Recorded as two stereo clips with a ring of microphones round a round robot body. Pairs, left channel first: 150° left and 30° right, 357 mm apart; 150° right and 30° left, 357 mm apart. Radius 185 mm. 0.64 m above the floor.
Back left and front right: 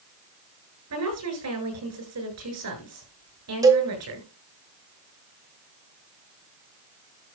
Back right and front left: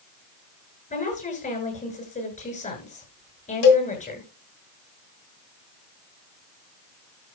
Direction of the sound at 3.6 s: 110° right.